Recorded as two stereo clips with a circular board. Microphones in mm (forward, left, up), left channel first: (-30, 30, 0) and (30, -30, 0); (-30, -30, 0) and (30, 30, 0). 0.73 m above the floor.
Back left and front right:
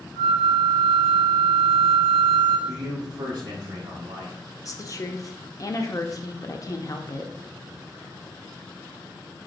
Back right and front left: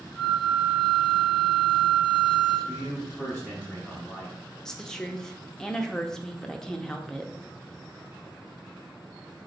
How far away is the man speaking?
About 0.9 m.